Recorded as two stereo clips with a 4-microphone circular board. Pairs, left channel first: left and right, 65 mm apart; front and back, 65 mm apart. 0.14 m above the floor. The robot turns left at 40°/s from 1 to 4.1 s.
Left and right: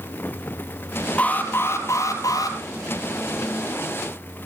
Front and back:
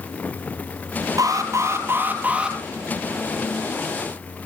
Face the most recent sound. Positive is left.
turn(degrees=40)